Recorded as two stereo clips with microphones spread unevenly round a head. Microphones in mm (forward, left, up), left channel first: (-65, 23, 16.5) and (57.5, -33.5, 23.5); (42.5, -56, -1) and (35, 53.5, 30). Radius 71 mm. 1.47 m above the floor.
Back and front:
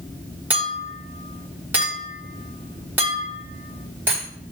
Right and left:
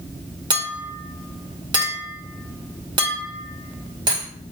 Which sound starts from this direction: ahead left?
A clink, at 0.5 s.